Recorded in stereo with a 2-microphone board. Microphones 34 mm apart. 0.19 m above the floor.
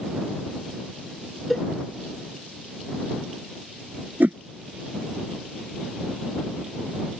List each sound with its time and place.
1.5 s a cowbell: 5° left (ahead or behind)
4.2 s a whoosh: 70° right (ahead or behind)